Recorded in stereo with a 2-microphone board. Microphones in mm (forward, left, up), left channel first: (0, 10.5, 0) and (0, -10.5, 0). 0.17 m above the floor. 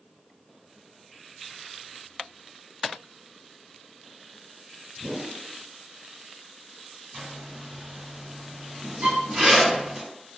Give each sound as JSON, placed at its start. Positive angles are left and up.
{"t": 5.0, "sound": "a whoosh", "side_deg": -20, "distance_m": 1.3}
{"t": 7.1, "sound": "a zipper", "side_deg": -20, "distance_m": 1.8}
{"t": 9.0, "sound": "a violin", "side_deg": -70, "distance_m": 0.6}